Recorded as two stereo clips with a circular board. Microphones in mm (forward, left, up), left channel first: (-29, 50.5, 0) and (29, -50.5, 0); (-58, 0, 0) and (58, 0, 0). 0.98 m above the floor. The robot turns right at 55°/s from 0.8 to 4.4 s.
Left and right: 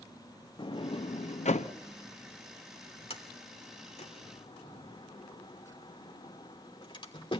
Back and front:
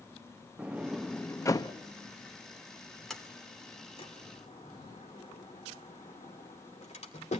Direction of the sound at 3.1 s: 90° left.